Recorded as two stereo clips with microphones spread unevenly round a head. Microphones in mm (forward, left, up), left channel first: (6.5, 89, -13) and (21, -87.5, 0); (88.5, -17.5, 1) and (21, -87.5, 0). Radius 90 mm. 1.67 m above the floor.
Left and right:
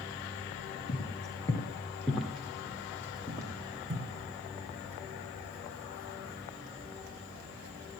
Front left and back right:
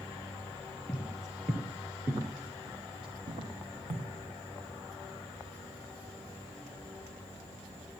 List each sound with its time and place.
0.9 s footsteps: 130° left, 1.8 m; by 4.1 s 145° right, 3 m